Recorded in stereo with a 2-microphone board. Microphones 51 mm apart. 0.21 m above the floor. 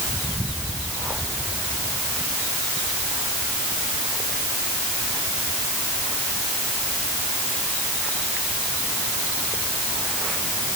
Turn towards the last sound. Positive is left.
No sound to turn to.